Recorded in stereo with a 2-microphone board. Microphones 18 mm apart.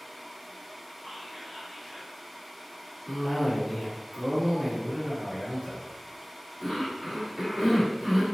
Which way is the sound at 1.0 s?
5° right (ahead or behind).